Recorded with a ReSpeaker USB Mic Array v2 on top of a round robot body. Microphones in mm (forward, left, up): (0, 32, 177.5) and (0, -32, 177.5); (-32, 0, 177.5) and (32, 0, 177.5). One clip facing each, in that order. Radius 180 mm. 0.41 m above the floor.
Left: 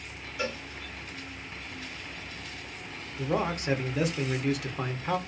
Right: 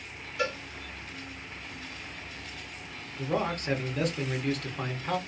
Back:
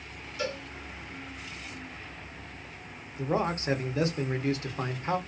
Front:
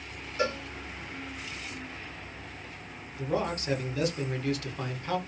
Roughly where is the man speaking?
Behind.